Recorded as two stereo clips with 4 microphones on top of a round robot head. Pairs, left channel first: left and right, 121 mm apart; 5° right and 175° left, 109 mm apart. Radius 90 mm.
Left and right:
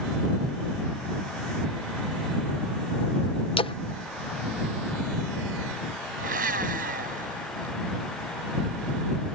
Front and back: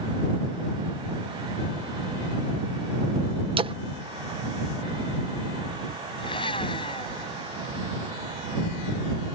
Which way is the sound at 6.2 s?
65° right.